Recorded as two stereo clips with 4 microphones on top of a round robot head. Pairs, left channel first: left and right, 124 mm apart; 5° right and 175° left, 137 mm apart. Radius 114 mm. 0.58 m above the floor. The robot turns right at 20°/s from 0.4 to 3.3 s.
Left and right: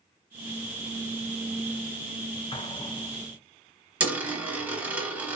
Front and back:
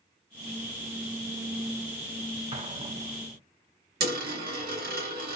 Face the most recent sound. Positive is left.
turn(degrees=-170)